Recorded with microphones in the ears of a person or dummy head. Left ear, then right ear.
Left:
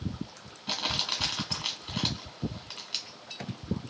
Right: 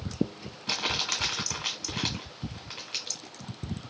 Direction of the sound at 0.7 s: 15° left (ahead or behind).